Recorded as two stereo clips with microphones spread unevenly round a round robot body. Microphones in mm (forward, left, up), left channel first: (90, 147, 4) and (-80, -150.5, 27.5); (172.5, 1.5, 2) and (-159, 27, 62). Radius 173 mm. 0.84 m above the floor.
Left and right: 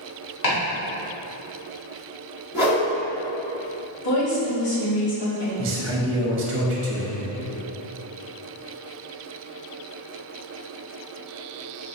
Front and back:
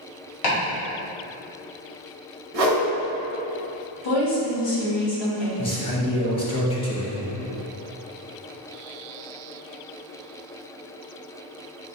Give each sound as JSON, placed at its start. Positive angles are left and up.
{"t": 0.4, "sound": "chopping", "azimuth_deg": 30, "distance_m": 1.7}
{"t": 2.5, "sound": "a whoosh", "azimuth_deg": 155, "distance_m": 1.1}
{"t": 4.0, "sound": "a woman speaking", "azimuth_deg": 25, "distance_m": 1.9}
{"t": 5.6, "sound": "a man speaking", "azimuth_deg": -65, "distance_m": 0.6}